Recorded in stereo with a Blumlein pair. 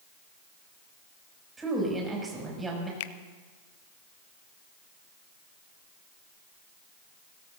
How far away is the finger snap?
About 0.6 m.